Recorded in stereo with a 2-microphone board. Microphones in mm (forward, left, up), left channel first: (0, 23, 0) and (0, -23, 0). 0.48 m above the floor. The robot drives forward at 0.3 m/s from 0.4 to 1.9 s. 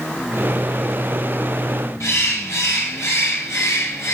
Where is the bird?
70° left (ahead or behind), 4 m.